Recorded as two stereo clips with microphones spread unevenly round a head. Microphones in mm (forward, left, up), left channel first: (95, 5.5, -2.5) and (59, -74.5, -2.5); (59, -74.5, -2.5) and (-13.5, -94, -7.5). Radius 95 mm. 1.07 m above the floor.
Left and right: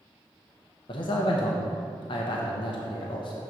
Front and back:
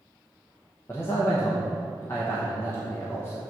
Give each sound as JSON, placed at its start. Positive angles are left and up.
{"t": 0.9, "sound": "a man speaking", "azimuth_deg": 85, "distance_m": 0.7}